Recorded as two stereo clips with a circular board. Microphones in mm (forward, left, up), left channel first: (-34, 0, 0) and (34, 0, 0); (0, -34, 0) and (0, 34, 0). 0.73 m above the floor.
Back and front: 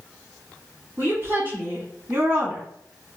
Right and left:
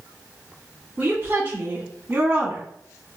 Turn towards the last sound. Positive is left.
turn(degrees=35)